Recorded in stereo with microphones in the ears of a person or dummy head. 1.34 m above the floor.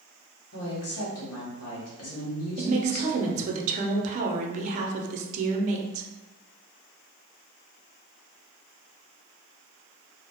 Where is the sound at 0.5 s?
75° left (ahead or behind), 1.1 m.